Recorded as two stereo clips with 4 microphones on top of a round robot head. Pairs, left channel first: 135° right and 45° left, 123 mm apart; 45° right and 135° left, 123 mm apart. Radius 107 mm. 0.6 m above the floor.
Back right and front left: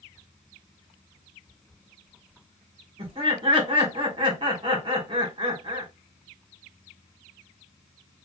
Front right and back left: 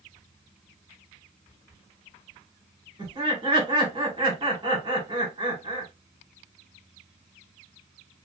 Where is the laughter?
90° left, 2 m.